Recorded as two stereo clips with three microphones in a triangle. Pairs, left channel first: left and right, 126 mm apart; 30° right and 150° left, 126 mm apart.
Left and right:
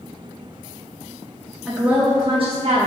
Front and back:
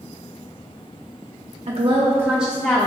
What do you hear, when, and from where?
1.7 s a woman speaking: straight behind, 0.5 m; by 2.9 s 95° right, 0.6 m